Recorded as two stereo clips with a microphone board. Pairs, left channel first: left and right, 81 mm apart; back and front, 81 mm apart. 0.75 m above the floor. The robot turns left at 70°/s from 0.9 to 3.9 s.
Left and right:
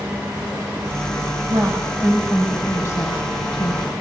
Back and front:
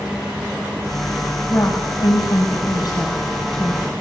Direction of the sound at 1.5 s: 115° right.